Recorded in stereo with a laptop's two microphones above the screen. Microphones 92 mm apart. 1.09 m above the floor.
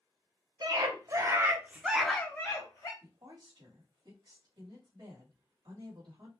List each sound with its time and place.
0.6 s a scream: 50° right (ahead or behind), 1.1 m; by 2.9 s 40° left (ahead or behind), 0.9 m
3.0 s a woman speaking: 55° right (ahead or behind), 1.2 m